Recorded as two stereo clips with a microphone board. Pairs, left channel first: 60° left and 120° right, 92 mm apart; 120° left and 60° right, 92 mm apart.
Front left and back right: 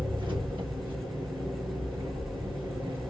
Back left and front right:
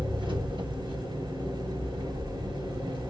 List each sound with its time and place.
0.0 s an engine running: 85° right, 2.5 m